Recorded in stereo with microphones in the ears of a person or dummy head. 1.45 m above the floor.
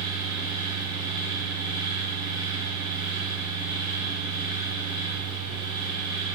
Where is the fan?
45° left (ahead or behind), 1.6 m.